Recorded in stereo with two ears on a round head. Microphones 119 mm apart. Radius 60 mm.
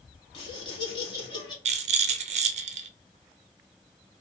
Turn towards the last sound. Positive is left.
turn(degrees=-55)  # may be behind; listen again after turning